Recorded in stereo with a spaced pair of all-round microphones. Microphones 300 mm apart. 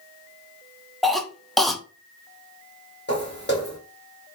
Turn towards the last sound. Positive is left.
turn(degrees=35)  # may be behind; listen again after turning